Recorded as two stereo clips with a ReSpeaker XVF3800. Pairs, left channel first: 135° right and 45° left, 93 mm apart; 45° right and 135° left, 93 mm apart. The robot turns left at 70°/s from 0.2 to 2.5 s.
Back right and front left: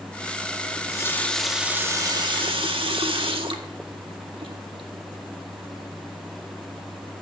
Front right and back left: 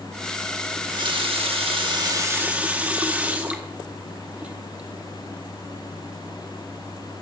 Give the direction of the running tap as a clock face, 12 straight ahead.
6 o'clock.